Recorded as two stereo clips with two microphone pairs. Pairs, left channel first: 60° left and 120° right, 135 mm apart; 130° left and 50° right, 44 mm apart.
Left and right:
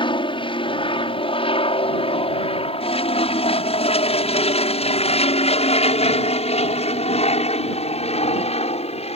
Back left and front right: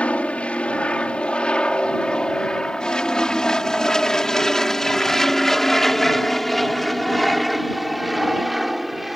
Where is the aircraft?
85° left; by 9.2 s 35° left.